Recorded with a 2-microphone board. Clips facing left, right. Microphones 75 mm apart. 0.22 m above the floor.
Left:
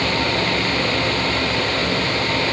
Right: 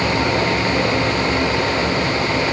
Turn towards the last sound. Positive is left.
No sound to turn to.